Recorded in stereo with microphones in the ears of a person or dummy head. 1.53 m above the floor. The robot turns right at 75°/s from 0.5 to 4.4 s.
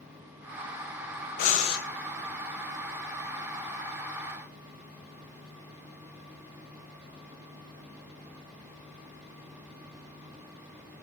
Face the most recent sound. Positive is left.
turn(degrees=-5)